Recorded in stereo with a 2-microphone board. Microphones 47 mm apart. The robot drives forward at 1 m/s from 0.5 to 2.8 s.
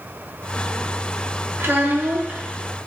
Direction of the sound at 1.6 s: 55° right (ahead or behind).